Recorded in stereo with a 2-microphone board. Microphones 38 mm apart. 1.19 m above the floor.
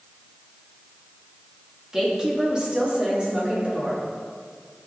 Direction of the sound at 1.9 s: 15° right (ahead or behind).